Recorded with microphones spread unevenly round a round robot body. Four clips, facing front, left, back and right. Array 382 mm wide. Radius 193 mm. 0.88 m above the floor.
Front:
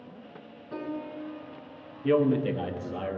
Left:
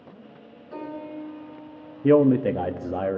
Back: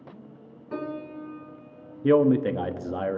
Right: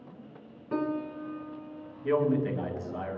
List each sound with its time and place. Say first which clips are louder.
0.7 s a piano: right 4 dB, back 2 dB; 110° right, 3 m
2.0 s a man speaking: left 9 dB, back 4 dB; 115° left, 1.1 m